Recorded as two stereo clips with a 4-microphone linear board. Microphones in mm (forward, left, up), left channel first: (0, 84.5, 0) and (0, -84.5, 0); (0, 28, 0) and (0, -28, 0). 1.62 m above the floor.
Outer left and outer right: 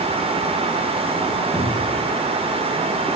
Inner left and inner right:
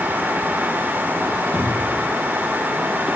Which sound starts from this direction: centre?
A cupboard door, at 1.5 s.